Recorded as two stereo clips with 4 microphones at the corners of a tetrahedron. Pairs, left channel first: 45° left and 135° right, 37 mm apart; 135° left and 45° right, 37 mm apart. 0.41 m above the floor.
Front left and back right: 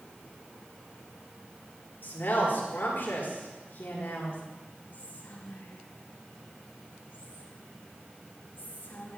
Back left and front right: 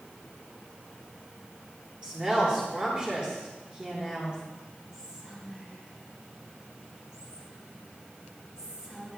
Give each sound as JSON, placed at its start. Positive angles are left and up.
{"t": 2.0, "sound": "a woman speaking", "azimuth_deg": 20, "distance_m": 6.0}
{"t": 4.9, "sound": "whispering", "azimuth_deg": 25, "distance_m": 4.0}